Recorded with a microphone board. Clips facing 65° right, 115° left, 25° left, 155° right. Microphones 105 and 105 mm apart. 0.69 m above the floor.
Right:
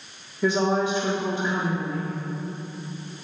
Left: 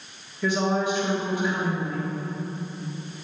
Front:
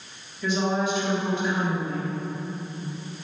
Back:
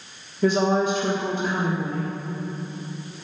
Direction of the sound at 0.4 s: 125° right.